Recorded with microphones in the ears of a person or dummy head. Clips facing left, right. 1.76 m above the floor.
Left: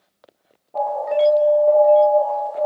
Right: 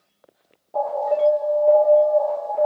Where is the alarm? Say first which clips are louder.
Left 1 dB; 10° left (ahead or behind), 3.5 m.